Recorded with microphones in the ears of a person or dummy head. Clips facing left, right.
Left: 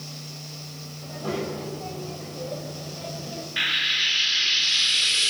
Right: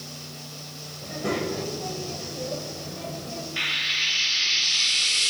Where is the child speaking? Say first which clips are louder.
Right 2 dB; 30° right (ahead or behind), 5.5 m; by 3.5 s 15° left (ahead or behind), 5 m.